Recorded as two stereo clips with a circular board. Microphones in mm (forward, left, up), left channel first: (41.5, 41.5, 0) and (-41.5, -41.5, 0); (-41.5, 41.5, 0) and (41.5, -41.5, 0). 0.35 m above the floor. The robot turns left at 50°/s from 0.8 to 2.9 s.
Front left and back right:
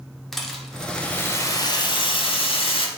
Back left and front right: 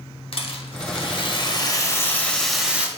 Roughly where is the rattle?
Behind left.